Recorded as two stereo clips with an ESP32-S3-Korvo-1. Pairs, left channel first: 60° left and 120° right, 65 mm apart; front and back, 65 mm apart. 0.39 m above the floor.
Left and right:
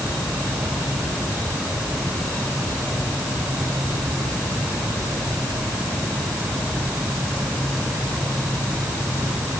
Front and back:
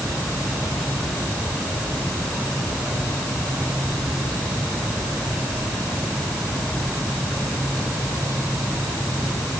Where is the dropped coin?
No dropped coin in this recording.